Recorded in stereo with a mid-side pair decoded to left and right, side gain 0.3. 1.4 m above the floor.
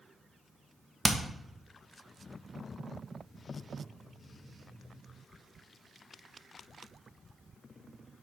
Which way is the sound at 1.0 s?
10° right.